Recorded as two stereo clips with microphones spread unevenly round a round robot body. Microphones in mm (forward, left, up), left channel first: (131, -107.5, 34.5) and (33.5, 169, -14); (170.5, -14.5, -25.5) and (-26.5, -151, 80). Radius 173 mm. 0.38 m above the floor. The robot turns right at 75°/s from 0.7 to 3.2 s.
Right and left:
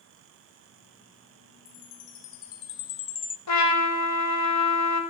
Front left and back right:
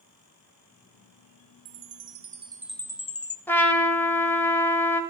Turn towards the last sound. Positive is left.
turn(degrees=-40)